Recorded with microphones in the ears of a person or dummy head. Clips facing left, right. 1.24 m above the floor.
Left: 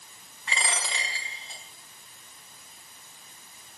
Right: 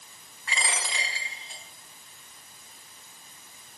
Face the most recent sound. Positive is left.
turn(degrees=25)  # may be behind; listen again after turning